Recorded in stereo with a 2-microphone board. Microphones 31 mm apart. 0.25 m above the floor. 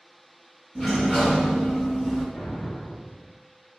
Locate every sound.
0.8 s a sliding door: centre (ahead or behind), 1.5 m
2.3 s an explosion: 60° left (ahead or behind), 1.5 m